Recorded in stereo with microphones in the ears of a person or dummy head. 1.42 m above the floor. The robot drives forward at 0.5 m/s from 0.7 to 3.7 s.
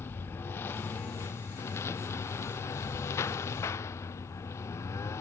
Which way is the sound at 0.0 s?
10° left (ahead or behind).